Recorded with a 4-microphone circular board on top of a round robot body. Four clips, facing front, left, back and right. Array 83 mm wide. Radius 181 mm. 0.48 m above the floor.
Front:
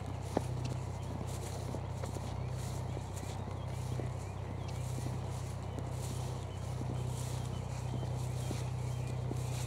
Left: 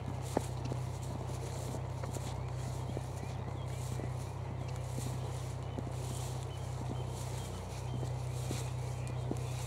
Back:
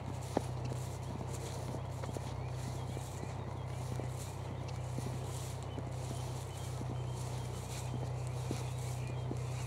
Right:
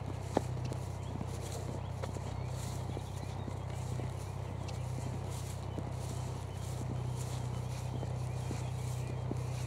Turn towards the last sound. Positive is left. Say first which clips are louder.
# right 1 dB, even
turn(degrees=-25)